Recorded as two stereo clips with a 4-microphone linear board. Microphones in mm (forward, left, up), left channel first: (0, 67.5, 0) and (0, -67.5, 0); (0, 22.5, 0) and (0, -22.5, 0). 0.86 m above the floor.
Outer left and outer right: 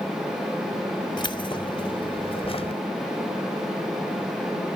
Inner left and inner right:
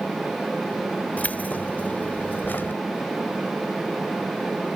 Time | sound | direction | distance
1.2 | keys jangling | 35° left (ahead or behind) | ?